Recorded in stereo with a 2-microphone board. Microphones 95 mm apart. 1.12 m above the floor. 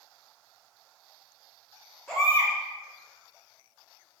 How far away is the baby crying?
About 1.8 m.